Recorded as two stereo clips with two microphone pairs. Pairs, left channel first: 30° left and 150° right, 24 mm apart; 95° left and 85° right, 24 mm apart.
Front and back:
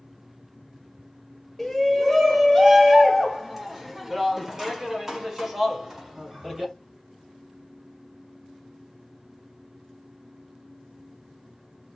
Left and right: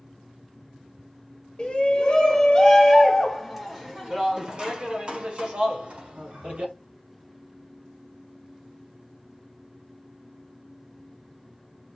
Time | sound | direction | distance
1.6 | a shout | 125° left | 1.4 m